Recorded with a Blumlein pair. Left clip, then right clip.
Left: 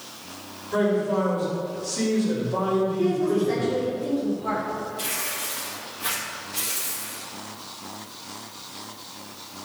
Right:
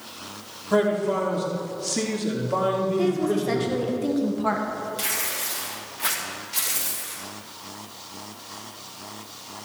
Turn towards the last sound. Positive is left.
turn(degrees=-25)